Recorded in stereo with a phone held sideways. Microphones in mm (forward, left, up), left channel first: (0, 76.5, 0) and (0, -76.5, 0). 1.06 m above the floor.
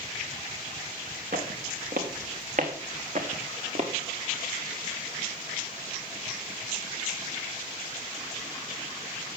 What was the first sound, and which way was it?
Footsteps, 70° right (ahead or behind).